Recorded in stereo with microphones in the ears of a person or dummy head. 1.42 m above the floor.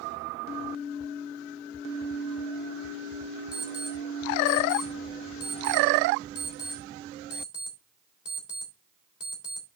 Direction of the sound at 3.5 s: 5° right (ahead or behind).